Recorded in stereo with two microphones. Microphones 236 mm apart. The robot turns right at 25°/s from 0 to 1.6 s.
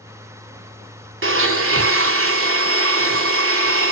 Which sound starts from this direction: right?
A blender, at 1.2 s.